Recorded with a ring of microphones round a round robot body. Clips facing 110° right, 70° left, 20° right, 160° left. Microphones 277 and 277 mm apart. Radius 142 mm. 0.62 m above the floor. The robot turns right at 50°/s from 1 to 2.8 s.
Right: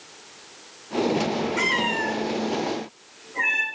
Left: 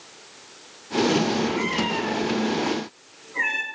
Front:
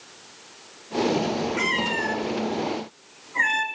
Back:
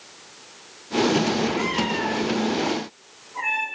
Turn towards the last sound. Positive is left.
turn(degrees=-15)